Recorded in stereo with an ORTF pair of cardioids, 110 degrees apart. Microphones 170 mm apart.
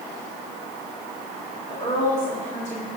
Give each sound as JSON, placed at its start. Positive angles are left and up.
{"t": 1.7, "sound": "a woman speaking", "azimuth_deg": 30, "distance_m": 3.0}